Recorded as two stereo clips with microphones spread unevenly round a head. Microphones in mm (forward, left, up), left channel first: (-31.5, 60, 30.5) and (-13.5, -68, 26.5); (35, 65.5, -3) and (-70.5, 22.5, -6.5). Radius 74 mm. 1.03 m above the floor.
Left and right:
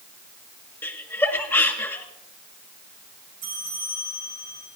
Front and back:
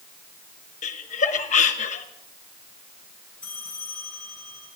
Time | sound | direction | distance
0.8 | laughter | 25° left | 1.2 m
3.4 | a bell | 60° right | 6 m